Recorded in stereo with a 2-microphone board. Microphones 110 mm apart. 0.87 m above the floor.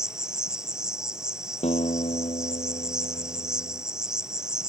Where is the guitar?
75° left (ahead or behind).